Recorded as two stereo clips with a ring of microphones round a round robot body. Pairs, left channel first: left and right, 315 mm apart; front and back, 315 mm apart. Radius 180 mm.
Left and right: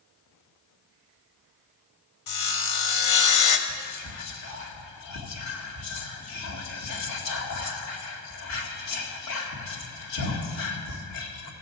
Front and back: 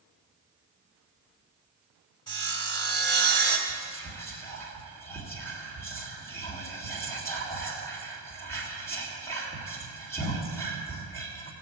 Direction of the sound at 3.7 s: 80° left.